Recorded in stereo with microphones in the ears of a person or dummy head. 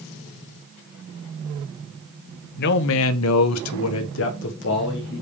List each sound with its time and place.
2.6 s a man speaking: 55° left (ahead or behind), 0.8 m